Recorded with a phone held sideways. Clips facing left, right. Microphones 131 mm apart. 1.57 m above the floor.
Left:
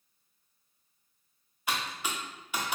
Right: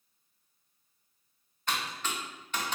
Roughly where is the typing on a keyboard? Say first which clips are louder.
Even; centre.